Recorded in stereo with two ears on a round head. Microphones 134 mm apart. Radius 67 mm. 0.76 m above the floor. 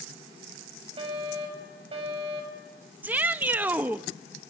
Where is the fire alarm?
35° right (ahead or behind), 6.5 m.